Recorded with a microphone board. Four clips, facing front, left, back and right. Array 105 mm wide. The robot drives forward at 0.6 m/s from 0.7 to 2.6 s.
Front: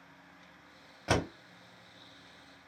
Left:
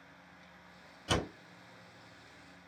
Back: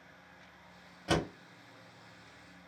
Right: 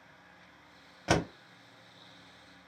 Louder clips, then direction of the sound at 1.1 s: Right 5 dB, front 1 dB; 60° right.